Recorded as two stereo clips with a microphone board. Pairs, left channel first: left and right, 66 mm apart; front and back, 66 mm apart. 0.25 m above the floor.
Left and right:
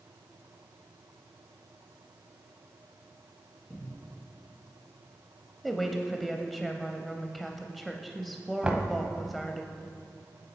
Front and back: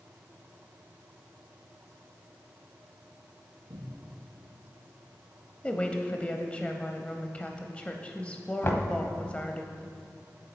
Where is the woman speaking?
Straight ahead, 1.0 m.